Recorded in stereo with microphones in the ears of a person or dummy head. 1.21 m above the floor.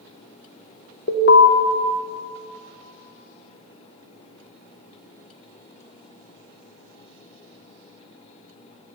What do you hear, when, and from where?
1.1 s an alarm: 50° left (ahead or behind), 0.8 m